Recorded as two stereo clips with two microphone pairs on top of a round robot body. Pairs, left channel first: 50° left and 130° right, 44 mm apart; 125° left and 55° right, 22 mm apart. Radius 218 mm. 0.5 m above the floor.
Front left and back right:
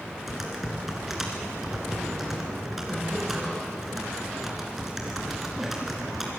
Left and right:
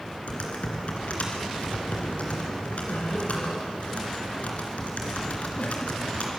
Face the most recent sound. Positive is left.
turn(degrees=145)